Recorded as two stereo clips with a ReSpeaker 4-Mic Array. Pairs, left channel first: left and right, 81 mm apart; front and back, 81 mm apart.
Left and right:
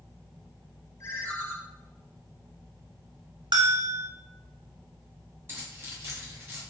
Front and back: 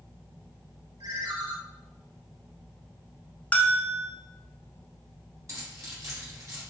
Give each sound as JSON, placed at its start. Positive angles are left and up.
{"t": 1.0, "sound": "a ringtone", "azimuth_deg": 150, "distance_m": 0.8}
{"t": 3.5, "sound": "a bell", "azimuth_deg": -70, "distance_m": 0.7}
{"t": 5.5, "sound": "keys jangling", "azimuth_deg": -145, "distance_m": 1.8}